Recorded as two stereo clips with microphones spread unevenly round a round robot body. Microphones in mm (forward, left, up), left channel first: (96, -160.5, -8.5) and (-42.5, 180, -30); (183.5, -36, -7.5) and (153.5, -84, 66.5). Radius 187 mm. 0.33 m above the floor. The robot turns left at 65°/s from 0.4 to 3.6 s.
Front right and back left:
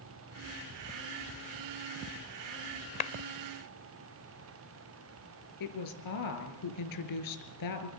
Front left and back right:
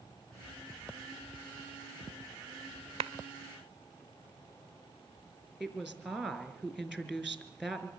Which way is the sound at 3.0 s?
130° right.